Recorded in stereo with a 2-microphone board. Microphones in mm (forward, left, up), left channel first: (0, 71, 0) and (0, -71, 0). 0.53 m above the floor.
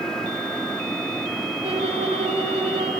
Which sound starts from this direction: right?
A violin, at 1.6 s.